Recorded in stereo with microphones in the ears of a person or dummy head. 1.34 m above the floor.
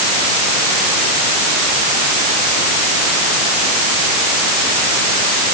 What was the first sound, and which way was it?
Only background noise.